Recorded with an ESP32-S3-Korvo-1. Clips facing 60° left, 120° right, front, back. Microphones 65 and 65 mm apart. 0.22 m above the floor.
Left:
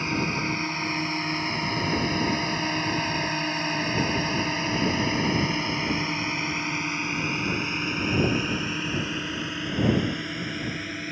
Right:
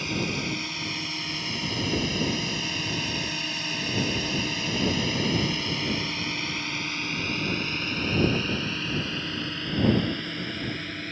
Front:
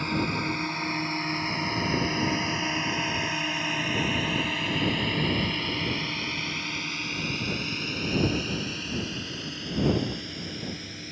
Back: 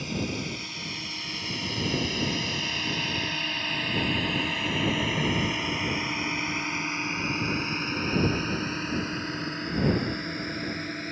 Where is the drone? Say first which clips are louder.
Left 3 dB, front 4 dB; 10° left; by 11.1 s 140° left.